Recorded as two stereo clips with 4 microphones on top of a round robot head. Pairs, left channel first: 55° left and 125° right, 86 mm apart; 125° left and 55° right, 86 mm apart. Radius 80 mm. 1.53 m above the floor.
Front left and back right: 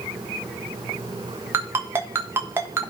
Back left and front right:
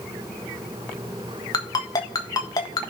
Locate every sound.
1.5 s a ringtone: 170° left, 1.4 m